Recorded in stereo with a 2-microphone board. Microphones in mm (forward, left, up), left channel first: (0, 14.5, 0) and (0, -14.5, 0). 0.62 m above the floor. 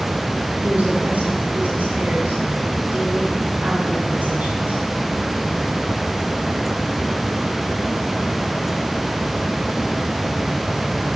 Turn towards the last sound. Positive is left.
turn(degrees=-80)